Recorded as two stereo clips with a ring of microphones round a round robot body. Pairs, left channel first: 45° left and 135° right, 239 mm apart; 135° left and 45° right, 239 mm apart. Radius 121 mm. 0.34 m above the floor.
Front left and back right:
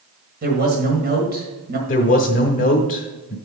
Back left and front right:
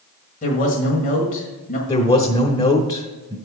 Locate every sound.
0.4 s a man speaking: 175° right, 1.7 m
1.9 s a man speaking: 70° left, 1.0 m